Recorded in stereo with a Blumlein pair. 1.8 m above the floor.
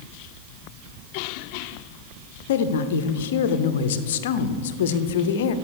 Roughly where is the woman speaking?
Ahead left.